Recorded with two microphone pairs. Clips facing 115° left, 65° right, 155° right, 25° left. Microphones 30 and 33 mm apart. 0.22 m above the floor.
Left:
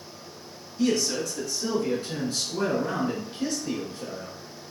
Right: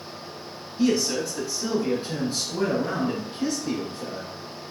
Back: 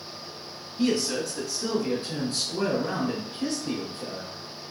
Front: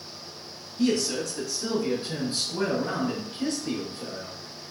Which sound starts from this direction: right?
A man speaking, at 0.8 s.